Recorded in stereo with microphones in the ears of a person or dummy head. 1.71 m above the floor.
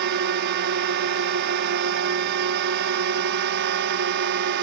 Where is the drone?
55° right (ahead or behind).